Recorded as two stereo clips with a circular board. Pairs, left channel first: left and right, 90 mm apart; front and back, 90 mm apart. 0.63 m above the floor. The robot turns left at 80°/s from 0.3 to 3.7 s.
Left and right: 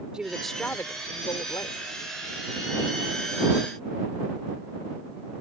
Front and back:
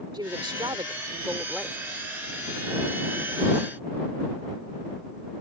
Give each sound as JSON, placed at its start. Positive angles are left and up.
{"t": 0.1, "sound": "a woman speaking", "azimuth_deg": -170}